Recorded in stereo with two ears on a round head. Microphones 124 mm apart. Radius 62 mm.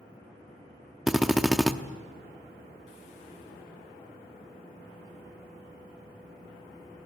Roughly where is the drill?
Centre.